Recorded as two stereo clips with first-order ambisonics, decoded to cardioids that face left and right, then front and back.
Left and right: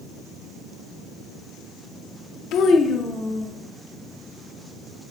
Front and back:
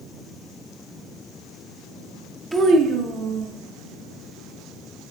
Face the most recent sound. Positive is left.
turn(degrees=-170)